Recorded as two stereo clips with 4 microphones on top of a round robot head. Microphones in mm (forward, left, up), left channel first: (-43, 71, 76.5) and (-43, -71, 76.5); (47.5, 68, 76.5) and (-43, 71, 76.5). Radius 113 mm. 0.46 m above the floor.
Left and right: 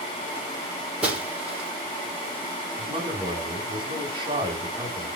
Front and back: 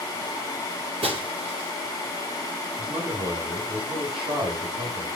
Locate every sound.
1.0 s breaking glass: 170° right, 8 m
2.8 s a man speaking: 145° right, 5.5 m